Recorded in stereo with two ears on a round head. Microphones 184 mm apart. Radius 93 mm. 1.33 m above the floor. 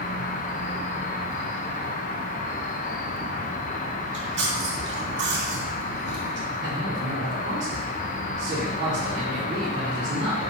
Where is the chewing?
65° right (ahead or behind), 2.5 m.